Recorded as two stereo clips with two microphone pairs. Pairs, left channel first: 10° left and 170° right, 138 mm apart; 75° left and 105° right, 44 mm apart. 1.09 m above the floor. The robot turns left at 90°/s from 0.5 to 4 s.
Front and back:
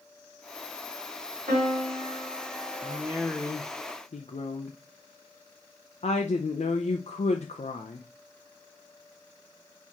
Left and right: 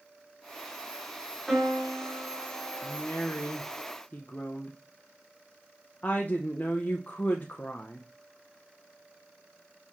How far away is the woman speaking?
About 0.5 m.